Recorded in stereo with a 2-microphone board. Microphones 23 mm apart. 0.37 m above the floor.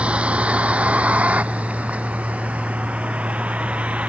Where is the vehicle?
60° right (ahead or behind); by 4.1 s 70° right (ahead or behind).